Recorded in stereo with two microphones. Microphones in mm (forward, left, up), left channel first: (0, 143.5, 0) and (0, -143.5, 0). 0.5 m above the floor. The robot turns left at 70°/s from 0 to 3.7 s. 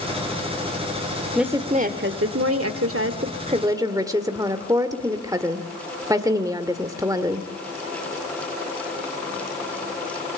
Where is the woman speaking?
Straight ahead, 1.4 m; by 7.5 s 165° right, 1.4 m.